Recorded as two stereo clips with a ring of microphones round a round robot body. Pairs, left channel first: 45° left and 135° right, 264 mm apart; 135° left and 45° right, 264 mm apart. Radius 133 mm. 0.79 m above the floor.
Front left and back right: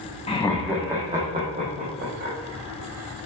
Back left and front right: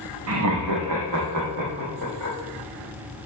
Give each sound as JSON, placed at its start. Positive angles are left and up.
{"t": 0.3, "sound": "laughter", "azimuth_deg": -20, "distance_m": 0.7}